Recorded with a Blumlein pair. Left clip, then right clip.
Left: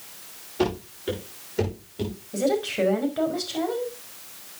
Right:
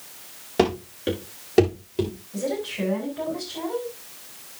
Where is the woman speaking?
35° left, 5 m.